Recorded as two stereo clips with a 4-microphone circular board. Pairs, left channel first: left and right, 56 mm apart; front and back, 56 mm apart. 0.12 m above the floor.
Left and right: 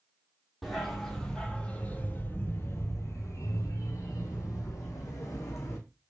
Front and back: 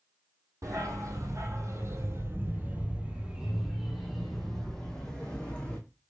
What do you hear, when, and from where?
0.6 s a dog barking: straight behind, 1.5 m; by 5.8 s 75° left, 2 m